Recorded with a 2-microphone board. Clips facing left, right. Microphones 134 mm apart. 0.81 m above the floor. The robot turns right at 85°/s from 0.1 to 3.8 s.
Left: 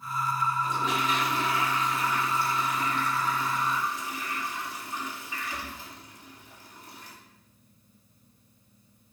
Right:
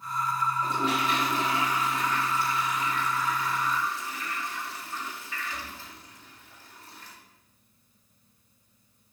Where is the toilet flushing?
110° right, 2.0 m; by 7.2 s 160° left, 2.0 m.